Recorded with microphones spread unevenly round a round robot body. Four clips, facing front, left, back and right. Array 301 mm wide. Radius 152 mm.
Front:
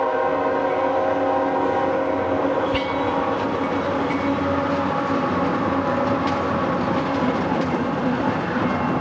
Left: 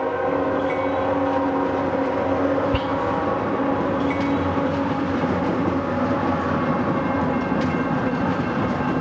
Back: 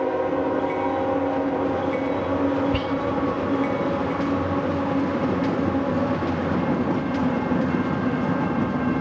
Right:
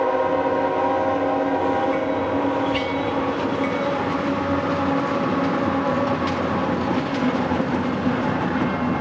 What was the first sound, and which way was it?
Whispering, 110° left.